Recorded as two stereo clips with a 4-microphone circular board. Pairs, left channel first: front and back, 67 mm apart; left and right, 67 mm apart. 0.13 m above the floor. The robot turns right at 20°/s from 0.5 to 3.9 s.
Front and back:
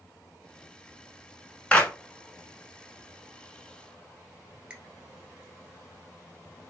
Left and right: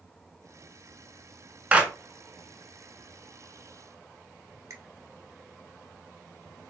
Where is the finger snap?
110° right, 1.4 m.